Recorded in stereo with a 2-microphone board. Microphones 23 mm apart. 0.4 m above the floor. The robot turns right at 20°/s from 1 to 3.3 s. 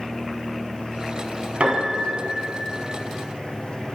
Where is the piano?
75° right (ahead or behind), 1.3 m; by 2.7 s 80° right, 1.3 m.